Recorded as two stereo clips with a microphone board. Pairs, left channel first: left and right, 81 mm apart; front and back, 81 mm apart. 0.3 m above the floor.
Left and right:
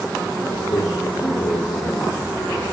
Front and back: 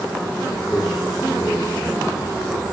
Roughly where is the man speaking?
Left.